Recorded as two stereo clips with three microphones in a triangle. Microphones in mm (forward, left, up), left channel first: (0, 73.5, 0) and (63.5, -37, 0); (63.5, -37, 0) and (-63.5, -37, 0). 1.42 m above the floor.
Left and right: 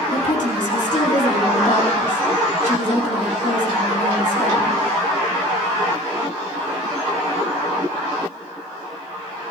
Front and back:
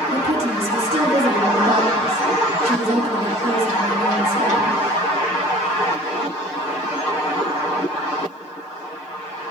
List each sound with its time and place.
0.1 s a woman speaking: 140° left, 2.5 m